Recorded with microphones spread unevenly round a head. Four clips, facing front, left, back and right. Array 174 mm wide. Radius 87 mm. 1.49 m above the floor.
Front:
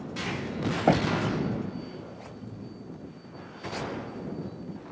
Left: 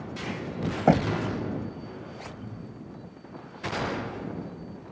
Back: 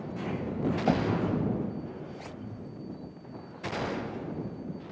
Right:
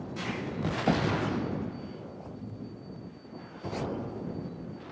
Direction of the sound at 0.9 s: 35° left.